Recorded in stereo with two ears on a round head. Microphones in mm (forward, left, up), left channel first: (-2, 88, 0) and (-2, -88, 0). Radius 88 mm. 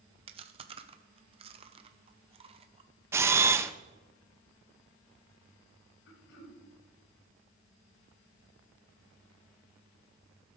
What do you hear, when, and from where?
0.3 s chewing: 30° right (ahead or behind), 0.8 m
3.1 s a camera shutter: 15° right (ahead or behind), 0.5 m
6.1 s throat clearing: 60° left (ahead or behind), 1.8 m